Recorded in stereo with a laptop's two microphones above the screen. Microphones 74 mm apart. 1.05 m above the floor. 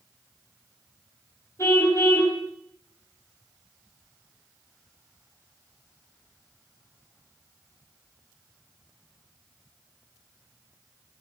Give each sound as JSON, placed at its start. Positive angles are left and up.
{"t": 1.6, "sound": "a car horn", "side_deg": 40, "distance_m": 2.5}